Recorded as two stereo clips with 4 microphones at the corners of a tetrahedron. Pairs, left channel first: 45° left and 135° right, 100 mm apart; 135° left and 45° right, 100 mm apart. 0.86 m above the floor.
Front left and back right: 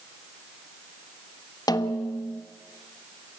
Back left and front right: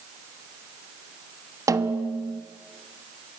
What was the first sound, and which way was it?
A snare drum, 5° left.